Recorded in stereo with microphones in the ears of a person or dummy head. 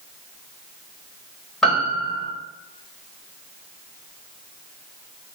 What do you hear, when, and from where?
1.6 s a piano: centre (ahead or behind), 6 m